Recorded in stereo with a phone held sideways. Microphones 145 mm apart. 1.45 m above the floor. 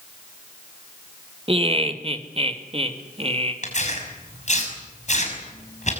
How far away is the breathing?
I don't hear breathing.